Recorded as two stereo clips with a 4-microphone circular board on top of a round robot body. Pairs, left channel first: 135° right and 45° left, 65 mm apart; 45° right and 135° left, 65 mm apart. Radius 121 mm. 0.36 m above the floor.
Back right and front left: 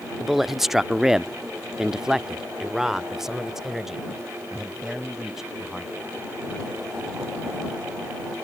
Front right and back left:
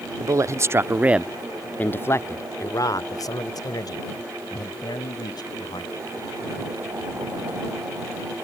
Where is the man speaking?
135° left; by 5.9 s 40° right.